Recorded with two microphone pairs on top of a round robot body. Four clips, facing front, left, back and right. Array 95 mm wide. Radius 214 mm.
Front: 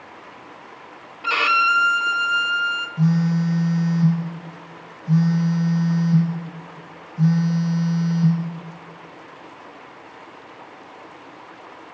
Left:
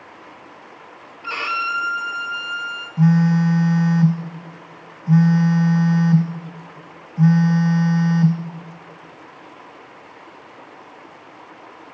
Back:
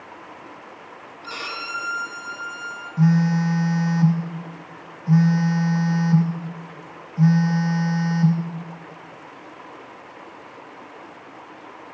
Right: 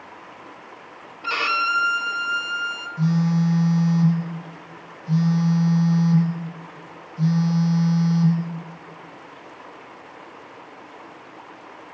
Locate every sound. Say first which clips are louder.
1.2 s a violin: right 1 dB, front 14 dB; 20° right, 1.5 m
3.0 s a phone buzzing: left 5 dB, back 2 dB; 110° left, 1.0 m